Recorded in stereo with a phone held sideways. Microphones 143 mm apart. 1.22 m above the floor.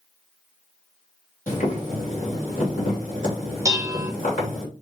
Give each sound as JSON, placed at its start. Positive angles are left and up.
{"t": 1.5, "sound": "boiling", "side_deg": 65, "distance_m": 2.5}
{"t": 3.6, "sound": "dishes clattering", "side_deg": -25, "distance_m": 0.7}